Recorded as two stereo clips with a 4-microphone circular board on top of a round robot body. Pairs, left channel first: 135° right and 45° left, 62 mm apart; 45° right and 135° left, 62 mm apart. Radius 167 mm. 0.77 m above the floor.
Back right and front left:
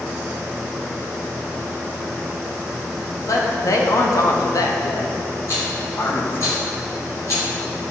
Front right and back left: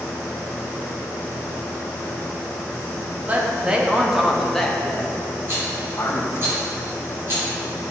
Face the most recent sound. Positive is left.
turn(degrees=-175)